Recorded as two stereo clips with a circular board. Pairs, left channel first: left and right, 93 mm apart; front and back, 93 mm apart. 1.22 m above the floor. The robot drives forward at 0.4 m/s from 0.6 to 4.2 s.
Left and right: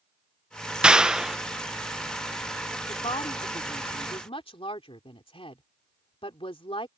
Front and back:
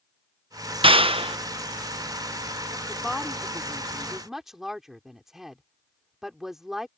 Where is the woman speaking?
85° left; by 6.9 s 95° left.